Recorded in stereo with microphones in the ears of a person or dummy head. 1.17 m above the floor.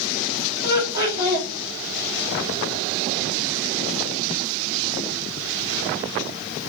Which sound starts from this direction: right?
Laughter, at 0.6 s.